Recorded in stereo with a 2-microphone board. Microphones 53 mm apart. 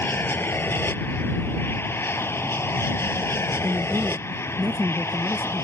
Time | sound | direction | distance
0.0 | an aircraft | 45° left (ahead or behind) | ?
3.6 | a man speaking | 40° right (ahead or behind) | ?